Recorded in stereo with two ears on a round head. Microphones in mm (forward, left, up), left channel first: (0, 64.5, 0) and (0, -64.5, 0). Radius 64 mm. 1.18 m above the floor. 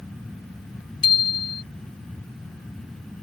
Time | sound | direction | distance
1.0 | a bicycle bell | 35° left (ahead or behind) | ?